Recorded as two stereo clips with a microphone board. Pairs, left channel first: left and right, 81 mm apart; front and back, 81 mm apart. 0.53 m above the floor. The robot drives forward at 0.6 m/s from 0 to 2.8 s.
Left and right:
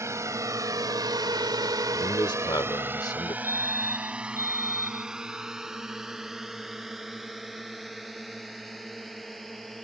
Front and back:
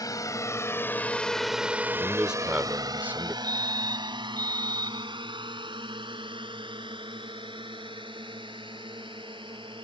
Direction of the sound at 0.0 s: 40° right.